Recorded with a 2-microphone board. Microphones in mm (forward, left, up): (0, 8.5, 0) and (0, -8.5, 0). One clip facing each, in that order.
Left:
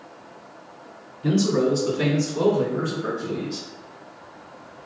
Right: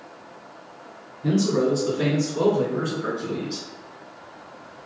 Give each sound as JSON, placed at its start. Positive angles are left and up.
{"t": 1.2, "sound": "a man speaking", "side_deg": 40, "distance_m": 2.0}